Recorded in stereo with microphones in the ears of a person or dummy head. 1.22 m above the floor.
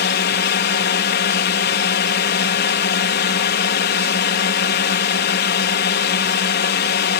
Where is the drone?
50° left (ahead or behind).